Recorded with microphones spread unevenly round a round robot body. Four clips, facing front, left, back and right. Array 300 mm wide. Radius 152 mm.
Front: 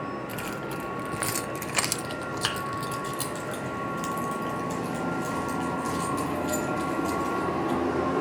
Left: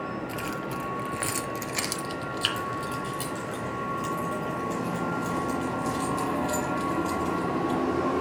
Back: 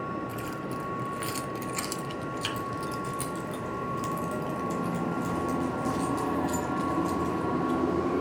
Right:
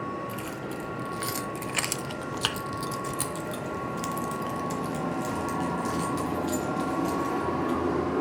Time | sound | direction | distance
0.3 | keys jangling | 35° left | 1.4 m